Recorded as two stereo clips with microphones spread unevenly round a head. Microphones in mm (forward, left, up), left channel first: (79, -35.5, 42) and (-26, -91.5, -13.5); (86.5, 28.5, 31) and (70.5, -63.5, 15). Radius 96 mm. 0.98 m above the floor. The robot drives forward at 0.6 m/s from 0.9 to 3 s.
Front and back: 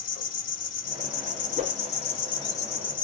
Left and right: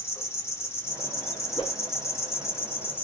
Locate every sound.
0.0 s an insect: 15° left, 1.2 m; by 3.0 s 145° left, 0.9 m
1.6 s a whoosh: 150° left, 0.6 m; by 1.8 s 155° left, 0.7 m